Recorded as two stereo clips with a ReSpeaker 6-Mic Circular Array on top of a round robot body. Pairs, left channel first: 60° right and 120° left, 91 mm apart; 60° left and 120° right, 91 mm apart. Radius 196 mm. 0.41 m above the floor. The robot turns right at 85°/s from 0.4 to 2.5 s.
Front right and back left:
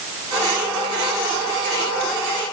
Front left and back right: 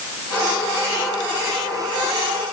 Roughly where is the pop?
No pop in this recording.